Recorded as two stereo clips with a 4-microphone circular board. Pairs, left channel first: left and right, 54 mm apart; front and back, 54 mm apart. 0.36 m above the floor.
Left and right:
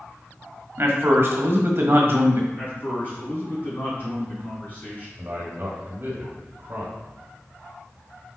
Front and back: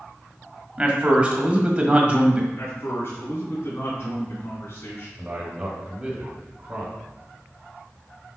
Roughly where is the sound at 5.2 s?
Behind right.